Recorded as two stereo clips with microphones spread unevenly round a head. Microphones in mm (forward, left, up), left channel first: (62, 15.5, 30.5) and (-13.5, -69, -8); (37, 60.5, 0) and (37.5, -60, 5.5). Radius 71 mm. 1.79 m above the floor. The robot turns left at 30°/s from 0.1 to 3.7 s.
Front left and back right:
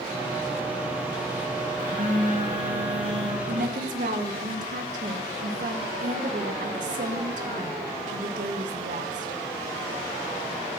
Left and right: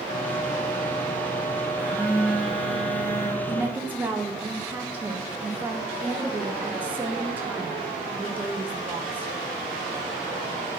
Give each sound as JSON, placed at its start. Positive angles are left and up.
{"t": 1.8, "sound": "a phone buzzing", "azimuth_deg": -155, "distance_m": 1.3}
{"t": 3.5, "sound": "a woman speaking", "azimuth_deg": -155, "distance_m": 0.7}